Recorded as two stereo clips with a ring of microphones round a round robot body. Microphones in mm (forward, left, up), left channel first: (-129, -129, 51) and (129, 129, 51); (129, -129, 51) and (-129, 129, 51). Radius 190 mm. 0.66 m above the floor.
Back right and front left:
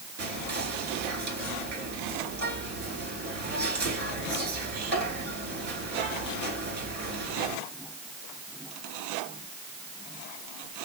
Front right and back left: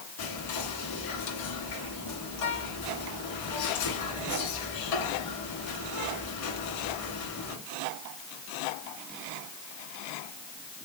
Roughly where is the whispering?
Ahead.